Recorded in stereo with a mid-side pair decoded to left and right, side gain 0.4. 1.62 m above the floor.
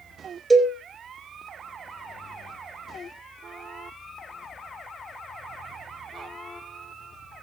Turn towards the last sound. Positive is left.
turn(degrees=-20)